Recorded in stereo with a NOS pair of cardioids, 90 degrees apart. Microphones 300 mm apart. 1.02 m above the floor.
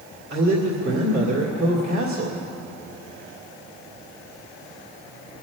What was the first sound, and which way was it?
A man speaking, 45° right.